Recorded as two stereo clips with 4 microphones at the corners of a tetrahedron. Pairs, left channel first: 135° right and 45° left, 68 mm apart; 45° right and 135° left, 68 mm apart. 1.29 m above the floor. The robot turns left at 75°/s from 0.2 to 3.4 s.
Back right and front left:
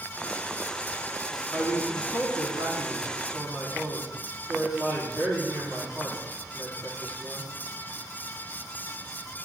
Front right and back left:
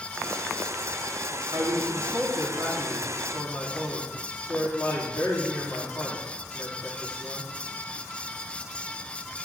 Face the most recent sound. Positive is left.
turn(degrees=5)